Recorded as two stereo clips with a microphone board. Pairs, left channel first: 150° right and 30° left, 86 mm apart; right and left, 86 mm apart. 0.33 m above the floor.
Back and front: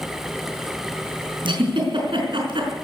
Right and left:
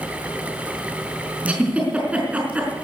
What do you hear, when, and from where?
1.4 s a giggle: 15° left, 4.5 m